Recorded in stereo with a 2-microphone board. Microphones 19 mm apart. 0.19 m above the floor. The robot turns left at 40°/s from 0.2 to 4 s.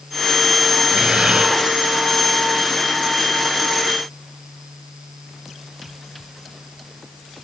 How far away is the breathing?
About 3 m.